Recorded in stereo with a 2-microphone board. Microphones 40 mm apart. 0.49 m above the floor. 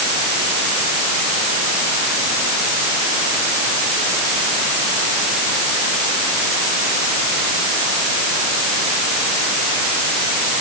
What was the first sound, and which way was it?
Only background noise.